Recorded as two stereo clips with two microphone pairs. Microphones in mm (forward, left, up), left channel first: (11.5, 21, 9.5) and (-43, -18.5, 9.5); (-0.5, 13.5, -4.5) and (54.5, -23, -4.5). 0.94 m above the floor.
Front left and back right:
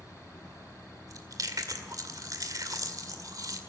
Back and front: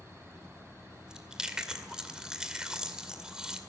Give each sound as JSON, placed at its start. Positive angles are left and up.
{"t": 1.1, "sound": "chewing", "azimuth_deg": -115, "distance_m": 1.9}